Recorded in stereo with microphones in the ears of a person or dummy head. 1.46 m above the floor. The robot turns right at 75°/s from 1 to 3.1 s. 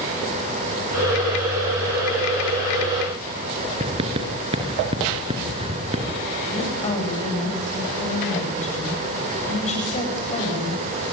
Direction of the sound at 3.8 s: 35° right (ahead or behind).